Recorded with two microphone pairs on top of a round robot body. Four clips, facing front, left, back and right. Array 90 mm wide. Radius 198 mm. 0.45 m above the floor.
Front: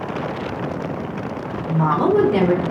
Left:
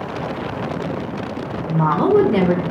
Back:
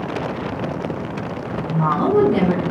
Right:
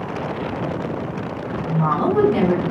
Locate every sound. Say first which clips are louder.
1.7 s a woman speaking: left 4 dB, front 1 dB; 85° left, 1.1 m